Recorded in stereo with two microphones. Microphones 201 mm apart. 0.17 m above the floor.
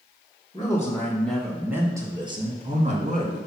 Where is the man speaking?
20° left (ahead or behind), 1.8 m; by 3.4 s 45° right (ahead or behind), 2.0 m.